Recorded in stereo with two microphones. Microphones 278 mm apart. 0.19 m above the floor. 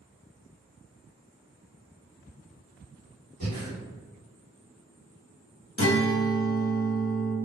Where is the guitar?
55° left (ahead or behind), 0.6 m.